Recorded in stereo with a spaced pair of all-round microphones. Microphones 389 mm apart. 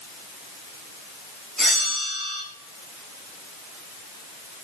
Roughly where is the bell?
Centre.